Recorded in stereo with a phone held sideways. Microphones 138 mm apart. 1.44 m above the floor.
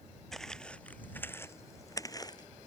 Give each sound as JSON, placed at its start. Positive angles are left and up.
{"t": 0.3, "sound": "footsteps", "side_deg": 5}